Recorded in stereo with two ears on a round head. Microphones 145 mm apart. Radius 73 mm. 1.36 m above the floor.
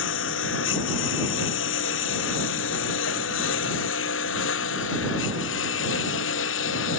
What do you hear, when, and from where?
0.0 s a lawn mower: 85° left; by 7.0 s 90° left